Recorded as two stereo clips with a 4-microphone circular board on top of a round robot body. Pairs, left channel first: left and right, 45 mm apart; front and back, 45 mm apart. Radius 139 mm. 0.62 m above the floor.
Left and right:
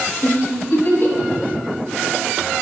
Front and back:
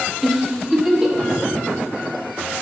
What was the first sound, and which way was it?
A giggle, 100° left.